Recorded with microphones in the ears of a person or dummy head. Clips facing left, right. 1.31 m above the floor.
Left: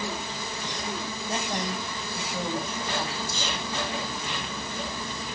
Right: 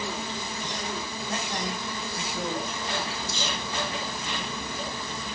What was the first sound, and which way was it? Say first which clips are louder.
A woman speaking: left 2 dB; 25° left (ahead or behind).